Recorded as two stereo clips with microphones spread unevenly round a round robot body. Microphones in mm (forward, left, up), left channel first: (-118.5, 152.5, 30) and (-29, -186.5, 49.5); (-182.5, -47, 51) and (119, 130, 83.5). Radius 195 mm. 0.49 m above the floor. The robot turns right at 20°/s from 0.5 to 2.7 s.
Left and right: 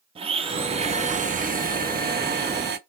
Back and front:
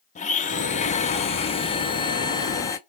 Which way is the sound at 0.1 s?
135° right.